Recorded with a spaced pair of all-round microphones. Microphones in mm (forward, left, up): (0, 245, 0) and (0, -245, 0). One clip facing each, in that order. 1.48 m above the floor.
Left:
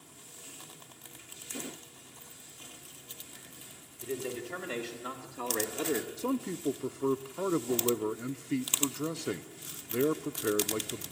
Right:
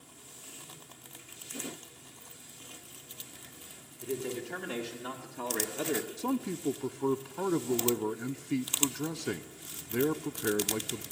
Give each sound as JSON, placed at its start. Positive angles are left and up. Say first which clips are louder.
{"t": 4.0, "sound": "a man speaking", "louder": "right 1 dB", "side_deg": -5, "distance_m": 3.5}
{"t": 6.2, "sound": "a man speaking", "louder": "even", "side_deg": -10, "distance_m": 0.7}